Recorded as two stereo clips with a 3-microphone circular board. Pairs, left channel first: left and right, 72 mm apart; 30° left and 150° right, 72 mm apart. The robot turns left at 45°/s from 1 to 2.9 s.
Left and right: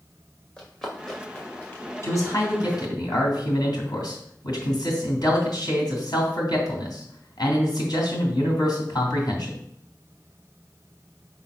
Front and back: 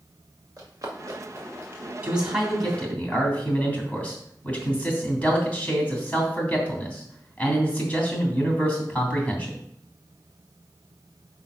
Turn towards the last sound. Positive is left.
turn(degrees=100)